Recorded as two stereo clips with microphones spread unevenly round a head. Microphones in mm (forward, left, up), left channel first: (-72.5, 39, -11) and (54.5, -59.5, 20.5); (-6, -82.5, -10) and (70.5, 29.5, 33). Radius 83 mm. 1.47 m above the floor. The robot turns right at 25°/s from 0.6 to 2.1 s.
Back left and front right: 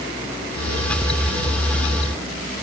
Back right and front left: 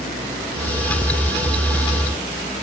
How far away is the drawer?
No drawer in this recording.